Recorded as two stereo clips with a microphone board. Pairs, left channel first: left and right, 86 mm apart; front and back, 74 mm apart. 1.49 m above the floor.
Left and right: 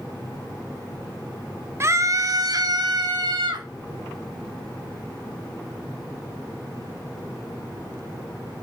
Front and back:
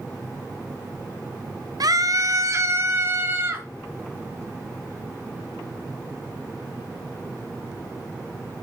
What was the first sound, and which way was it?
A scream, 145° right.